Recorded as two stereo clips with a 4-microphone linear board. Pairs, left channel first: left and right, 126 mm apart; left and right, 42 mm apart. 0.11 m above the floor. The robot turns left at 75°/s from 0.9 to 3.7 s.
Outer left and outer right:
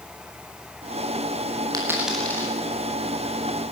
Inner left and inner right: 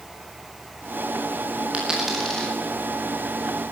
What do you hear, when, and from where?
1.7 s a dropped coin: 30° right (ahead or behind), 8 m; by 2.5 s 30° left (ahead or behind), 8 m